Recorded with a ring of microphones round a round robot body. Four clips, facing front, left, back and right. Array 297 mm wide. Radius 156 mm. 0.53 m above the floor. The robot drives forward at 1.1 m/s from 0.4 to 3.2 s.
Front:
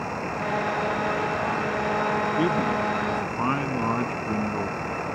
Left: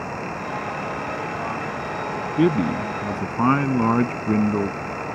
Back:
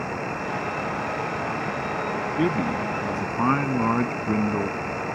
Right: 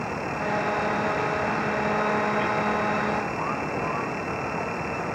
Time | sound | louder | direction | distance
2.4 | a man speaking | left 4 dB, front 1 dB | 95° left | ?